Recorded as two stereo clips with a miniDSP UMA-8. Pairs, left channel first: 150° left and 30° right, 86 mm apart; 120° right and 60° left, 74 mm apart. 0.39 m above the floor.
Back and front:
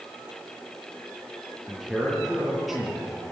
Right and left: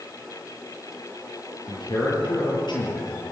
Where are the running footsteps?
No running footsteps in this recording.